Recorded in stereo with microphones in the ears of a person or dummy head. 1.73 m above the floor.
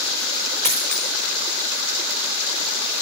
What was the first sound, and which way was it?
A dropped coin, 45° right (ahead or behind).